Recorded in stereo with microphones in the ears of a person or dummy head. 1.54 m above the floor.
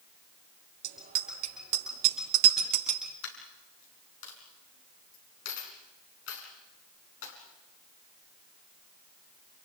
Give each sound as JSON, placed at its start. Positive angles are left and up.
{"t": 0.8, "sound": "a bicycle bell", "side_deg": -55, "distance_m": 4.5}
{"t": 3.2, "sound": "a dropped coin", "side_deg": 80, "distance_m": 5.5}